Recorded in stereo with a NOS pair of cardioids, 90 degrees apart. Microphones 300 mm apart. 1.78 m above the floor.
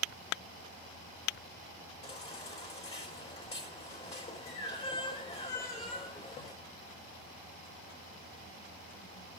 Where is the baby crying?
20° left, 4.5 m.